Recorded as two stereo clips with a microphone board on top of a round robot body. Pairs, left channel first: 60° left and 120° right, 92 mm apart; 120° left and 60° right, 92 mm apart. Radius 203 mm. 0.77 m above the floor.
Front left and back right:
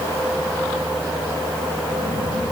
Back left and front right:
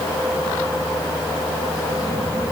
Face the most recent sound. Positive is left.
No sound to turn to.